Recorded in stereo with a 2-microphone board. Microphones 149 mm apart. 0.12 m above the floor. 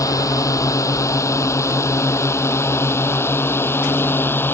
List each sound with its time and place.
0.0 s a drone: 20° left (ahead or behind); by 4.5 s 15° left (ahead or behind)